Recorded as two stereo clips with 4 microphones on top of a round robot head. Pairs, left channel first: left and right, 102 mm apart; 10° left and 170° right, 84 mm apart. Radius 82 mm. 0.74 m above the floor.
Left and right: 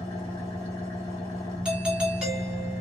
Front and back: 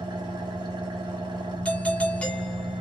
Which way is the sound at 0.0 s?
150° left.